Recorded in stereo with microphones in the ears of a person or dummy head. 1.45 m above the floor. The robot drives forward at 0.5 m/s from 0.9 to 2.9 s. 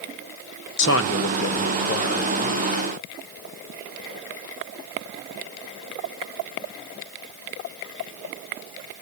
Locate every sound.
0.8 s a man speaking: 65° left (ahead or behind), 0.6 m; by 2.6 s 35° left (ahead or behind), 1.0 m